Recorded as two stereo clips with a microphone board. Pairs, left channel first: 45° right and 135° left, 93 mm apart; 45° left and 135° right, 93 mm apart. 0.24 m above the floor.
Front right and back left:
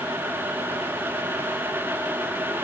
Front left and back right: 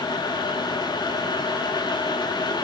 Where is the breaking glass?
I don't hear breaking glass.